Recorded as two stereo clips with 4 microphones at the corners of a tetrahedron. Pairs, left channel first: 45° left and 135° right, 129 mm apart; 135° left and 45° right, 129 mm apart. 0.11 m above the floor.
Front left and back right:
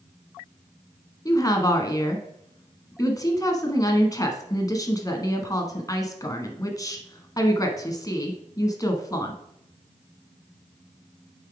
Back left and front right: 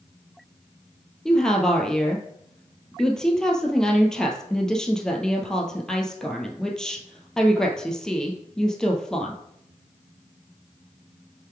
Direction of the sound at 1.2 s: 55° left.